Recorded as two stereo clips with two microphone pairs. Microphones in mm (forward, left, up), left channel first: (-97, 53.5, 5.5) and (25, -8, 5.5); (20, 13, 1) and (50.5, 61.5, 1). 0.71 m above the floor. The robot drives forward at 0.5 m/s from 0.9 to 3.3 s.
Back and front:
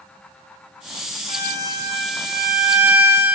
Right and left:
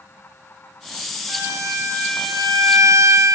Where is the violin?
35° left, 2.5 m; by 3.4 s 55° left, 1.9 m.